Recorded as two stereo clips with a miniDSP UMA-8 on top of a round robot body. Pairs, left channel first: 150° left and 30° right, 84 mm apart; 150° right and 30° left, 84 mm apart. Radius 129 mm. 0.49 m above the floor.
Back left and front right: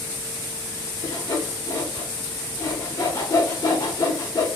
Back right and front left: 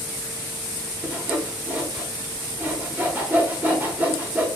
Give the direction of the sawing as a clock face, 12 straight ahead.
9 o'clock.